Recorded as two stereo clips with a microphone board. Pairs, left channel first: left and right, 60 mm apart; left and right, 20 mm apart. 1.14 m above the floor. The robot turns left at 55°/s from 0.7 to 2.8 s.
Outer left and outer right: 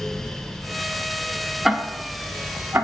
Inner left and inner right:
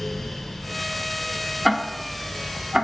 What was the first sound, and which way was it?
Ticking, 5° right (ahead or behind).